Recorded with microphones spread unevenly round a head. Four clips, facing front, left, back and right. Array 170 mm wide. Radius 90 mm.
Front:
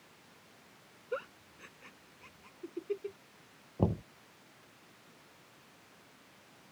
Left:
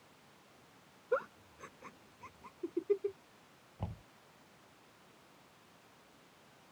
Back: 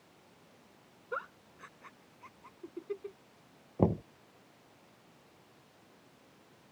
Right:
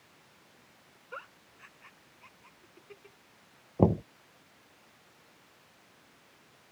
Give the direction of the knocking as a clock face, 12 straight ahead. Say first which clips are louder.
Right 23 dB, back 3 dB; 4 o'clock.